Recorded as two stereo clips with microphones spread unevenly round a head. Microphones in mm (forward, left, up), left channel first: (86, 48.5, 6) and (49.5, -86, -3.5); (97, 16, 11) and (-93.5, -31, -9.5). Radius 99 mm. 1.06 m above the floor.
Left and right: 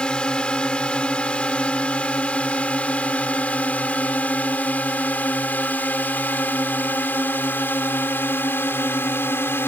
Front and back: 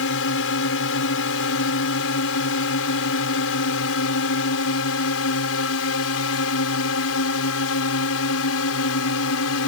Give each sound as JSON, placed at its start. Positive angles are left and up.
{"t": 0.0, "sound": "a drone", "azimuth_deg": -10}